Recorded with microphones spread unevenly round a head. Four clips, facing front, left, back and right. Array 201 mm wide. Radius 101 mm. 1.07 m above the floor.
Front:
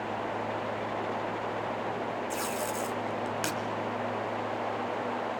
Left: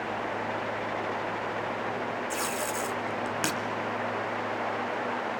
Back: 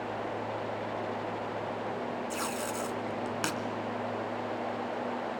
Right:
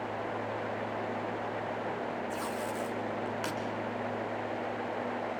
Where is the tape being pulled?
100° left, 1.9 m.